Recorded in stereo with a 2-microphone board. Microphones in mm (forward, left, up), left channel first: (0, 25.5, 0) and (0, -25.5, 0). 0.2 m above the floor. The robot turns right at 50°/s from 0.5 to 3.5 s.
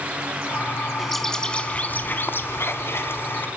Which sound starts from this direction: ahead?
A bird, at 1.0 s.